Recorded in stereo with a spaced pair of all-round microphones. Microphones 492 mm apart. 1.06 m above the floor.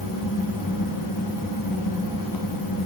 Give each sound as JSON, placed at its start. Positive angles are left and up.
{"t": 0.0, "sound": "a fan", "side_deg": 40, "distance_m": 0.8}